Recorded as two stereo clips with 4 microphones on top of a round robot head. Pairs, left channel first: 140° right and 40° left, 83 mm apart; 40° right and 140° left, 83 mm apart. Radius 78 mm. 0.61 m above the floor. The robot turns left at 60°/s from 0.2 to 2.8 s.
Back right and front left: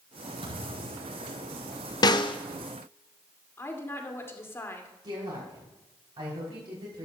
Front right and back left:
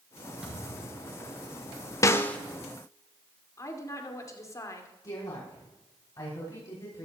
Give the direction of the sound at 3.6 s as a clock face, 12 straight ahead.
3 o'clock.